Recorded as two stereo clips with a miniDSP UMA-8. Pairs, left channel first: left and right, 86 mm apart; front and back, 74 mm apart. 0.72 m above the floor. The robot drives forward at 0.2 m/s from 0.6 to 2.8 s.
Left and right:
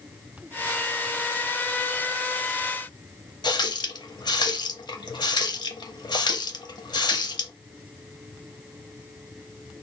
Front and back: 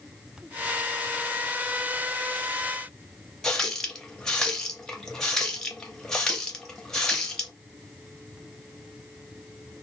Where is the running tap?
80° left, 0.6 m.